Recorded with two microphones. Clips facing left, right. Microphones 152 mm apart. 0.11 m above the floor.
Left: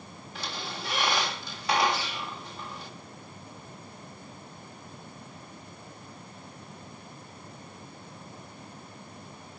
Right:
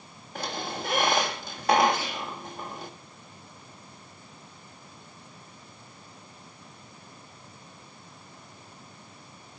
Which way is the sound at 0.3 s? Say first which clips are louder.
Right 5 dB; 45° right (ahead or behind).